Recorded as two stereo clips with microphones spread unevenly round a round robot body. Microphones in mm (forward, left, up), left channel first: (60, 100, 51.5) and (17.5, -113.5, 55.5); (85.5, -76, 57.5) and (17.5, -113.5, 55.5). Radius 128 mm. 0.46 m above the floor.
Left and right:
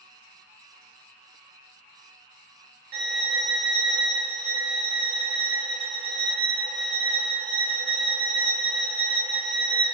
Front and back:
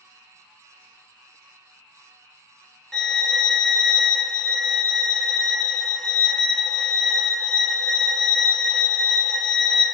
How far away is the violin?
About 0.7 m.